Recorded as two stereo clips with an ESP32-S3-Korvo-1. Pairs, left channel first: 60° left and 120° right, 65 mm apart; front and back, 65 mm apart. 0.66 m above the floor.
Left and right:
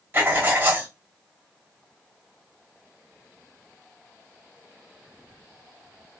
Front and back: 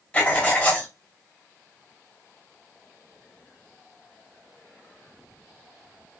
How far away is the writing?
About 1.0 m.